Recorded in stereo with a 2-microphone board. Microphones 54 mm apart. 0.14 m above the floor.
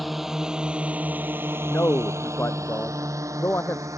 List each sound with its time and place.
0.0 s a drone: centre (ahead or behind); by 4.0 s 80° right
1.7 s a man speaking: 50° left (ahead or behind)